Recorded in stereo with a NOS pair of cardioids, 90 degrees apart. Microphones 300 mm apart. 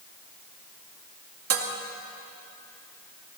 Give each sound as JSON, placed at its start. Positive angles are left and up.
{"t": 1.5, "sound": "dishes clattering", "azimuth_deg": -55, "distance_m": 2.5}